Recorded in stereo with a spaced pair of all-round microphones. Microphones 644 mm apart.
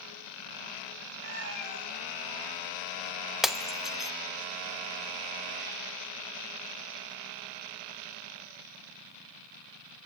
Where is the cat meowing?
15° left (ahead or behind), 10 m; by 3.3 s centre (ahead or behind), 10.5 m.